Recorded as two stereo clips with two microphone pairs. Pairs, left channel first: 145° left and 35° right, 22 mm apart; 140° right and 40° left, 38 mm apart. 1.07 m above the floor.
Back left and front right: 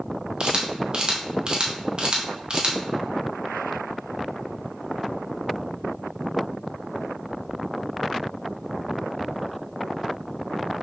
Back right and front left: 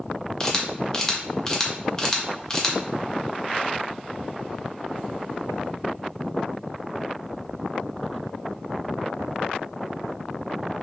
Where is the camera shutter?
80° right, 0.6 m.